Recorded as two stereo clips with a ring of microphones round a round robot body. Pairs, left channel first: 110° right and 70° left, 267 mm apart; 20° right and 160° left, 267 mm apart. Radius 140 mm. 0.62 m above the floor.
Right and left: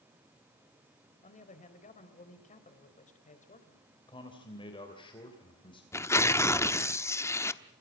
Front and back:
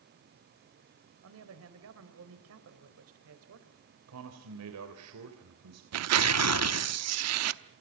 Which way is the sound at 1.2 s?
175° right.